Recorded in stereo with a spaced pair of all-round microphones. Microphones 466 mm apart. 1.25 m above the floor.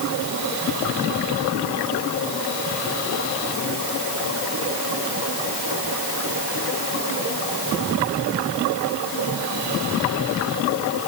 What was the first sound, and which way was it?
Only background noise.